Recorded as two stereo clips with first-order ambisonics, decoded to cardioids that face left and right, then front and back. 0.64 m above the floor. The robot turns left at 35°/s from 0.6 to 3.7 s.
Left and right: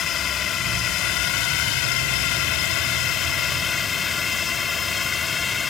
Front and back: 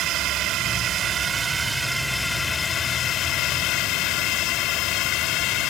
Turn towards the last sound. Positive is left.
turn(degrees=20)